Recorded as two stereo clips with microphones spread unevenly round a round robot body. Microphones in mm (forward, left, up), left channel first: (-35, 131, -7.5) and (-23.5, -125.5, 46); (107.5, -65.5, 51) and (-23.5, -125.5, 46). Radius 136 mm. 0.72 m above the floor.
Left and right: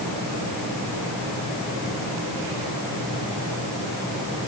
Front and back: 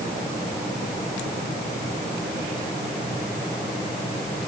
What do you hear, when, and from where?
Only background noise.